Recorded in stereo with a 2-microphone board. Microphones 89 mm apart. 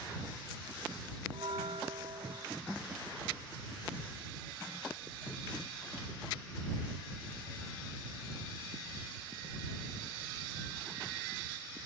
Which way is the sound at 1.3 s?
85° right.